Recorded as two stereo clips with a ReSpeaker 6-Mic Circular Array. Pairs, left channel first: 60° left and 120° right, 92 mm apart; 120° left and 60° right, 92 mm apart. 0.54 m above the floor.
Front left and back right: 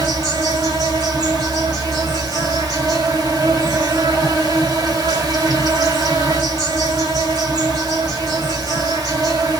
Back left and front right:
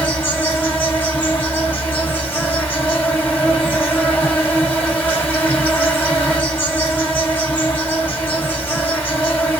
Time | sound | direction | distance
0.0 | an insect | 165° right | 2 m